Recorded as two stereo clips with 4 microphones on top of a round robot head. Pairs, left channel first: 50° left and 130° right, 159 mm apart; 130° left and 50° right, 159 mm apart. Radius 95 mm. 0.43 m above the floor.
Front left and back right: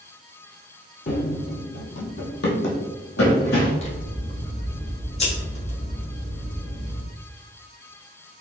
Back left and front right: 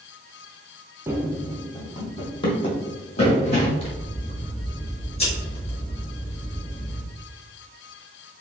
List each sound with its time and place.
1.1 s running footsteps: 25° left, 0.5 m; by 3.7 s 80° left, 1.7 m
3.8 s scissors: 90° left, 1.7 m